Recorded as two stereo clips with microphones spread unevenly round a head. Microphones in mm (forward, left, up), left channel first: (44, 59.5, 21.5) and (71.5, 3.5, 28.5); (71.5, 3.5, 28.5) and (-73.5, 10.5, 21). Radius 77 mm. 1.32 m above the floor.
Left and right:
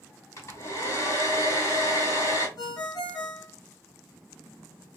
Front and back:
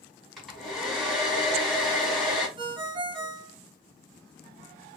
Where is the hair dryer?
85° left, 1.8 m.